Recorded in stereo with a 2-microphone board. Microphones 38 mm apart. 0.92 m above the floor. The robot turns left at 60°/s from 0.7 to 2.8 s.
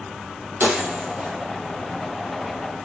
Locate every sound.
0.6 s breaking glass: 65° right (ahead or behind), 2.5 m; by 1.3 s 30° right (ahead or behind), 2.5 m